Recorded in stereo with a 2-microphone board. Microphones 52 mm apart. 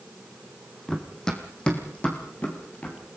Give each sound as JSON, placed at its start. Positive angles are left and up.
{"t": 0.9, "sound": "running footsteps", "side_deg": 5, "distance_m": 2.5}